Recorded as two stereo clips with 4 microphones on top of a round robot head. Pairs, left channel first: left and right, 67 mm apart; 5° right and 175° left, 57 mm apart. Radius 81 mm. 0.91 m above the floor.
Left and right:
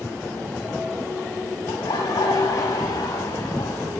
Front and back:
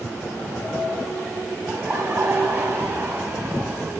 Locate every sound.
1.7 s laughter: 125° left, 8 m